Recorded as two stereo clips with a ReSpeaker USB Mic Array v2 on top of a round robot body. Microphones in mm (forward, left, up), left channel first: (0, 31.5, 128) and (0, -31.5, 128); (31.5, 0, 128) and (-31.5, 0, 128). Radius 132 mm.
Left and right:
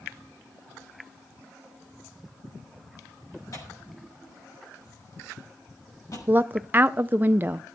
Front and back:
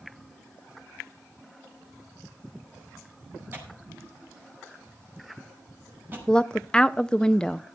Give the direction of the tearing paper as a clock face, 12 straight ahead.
8 o'clock.